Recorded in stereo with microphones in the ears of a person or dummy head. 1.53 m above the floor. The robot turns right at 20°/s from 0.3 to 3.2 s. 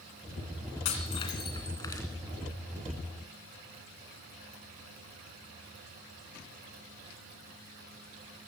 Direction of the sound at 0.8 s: 35° left (ahead or behind).